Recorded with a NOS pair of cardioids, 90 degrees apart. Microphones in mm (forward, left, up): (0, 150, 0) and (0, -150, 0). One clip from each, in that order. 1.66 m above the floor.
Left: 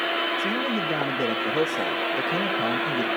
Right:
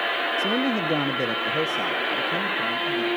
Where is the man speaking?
35° right, 1.8 m; by 3.1 s 40° left, 3 m.